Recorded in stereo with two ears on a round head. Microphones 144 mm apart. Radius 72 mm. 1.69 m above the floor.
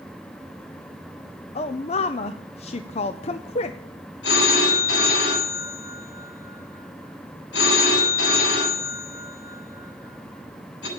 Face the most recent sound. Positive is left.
turn(degrees=80)